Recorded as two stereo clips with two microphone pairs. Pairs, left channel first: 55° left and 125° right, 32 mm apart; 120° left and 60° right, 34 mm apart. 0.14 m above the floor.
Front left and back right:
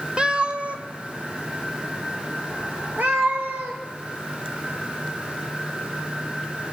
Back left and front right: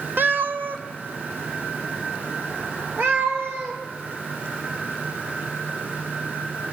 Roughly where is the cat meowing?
Ahead right.